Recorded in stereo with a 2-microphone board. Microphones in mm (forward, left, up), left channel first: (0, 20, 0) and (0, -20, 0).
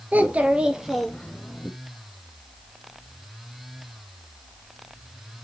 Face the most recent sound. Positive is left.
turn(degrees=35)  # may be behind; listen again after turning